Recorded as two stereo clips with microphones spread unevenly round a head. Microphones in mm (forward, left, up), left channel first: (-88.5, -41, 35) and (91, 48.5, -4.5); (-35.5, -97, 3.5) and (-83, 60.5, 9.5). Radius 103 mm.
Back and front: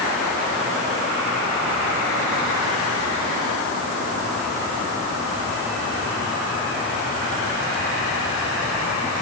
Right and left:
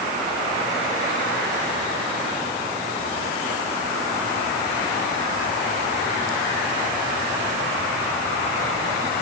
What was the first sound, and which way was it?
Only background noise.